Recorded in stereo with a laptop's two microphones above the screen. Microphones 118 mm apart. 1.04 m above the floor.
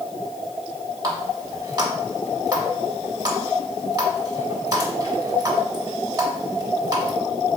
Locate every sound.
1.0 s a running tap: 35° right (ahead or behind), 1.5 m